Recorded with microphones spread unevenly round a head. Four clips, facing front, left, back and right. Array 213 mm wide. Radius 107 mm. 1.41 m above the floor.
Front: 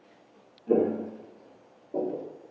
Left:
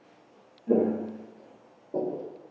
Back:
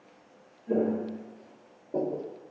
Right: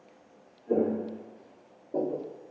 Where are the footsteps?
50° left, 1.6 m; by 2.3 s 160° left, 1.6 m.